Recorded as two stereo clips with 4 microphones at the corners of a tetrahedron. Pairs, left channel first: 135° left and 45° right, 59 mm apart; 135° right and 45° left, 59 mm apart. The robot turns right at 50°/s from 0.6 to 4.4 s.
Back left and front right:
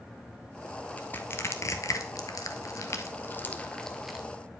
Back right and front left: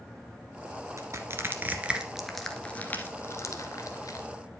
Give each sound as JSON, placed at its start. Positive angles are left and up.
{"t": 1.0, "sound": "crushing", "azimuth_deg": 70, "distance_m": 1.1}